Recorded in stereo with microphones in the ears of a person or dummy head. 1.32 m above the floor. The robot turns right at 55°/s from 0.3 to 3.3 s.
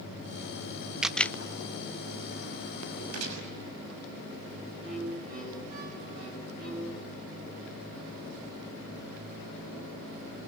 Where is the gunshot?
85° right, 6 m.